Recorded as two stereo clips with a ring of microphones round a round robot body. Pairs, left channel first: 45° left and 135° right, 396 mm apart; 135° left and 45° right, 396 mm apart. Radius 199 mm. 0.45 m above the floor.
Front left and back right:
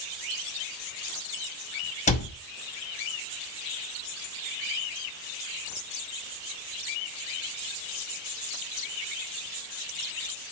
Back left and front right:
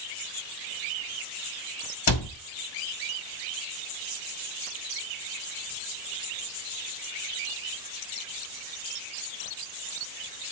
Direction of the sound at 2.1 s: 110° left.